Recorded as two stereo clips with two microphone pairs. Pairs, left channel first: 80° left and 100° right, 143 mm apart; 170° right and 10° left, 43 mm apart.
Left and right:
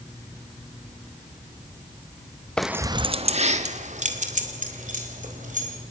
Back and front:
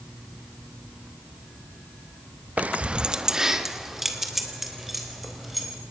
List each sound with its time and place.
2.6 s keys jangling: straight ahead, 0.6 m; by 5.8 s 80° right, 4.5 m